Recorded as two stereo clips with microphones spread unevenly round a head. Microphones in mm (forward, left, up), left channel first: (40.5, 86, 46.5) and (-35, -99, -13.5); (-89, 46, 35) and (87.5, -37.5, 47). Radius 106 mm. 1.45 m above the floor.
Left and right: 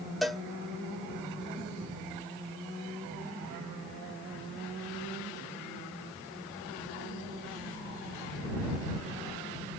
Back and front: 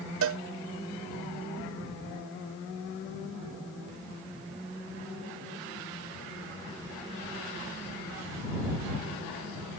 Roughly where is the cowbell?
Ahead right.